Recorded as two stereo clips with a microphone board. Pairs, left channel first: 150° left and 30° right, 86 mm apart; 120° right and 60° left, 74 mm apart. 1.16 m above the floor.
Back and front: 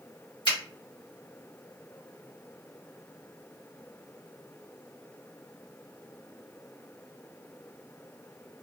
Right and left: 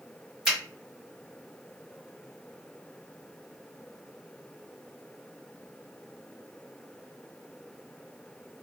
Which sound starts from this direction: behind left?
A finger snap, at 0.5 s.